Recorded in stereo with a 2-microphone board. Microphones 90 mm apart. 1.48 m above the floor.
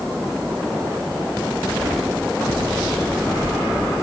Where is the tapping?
No tapping in this recording.